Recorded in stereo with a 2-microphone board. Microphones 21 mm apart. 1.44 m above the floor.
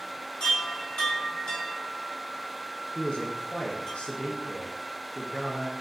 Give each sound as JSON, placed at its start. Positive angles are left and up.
{"t": 0.4, "sound": "a chime", "side_deg": 55, "distance_m": 1.3}
{"t": 3.0, "sound": "a man speaking", "side_deg": 85, "distance_m": 0.6}